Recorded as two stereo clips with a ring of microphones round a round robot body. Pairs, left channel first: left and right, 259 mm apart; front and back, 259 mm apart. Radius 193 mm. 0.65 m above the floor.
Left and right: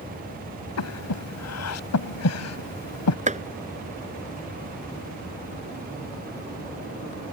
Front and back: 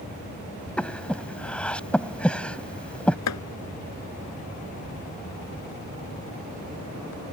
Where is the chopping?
30° right.